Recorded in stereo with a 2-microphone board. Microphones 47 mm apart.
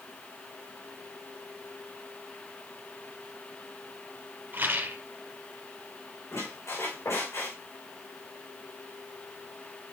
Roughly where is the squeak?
Left.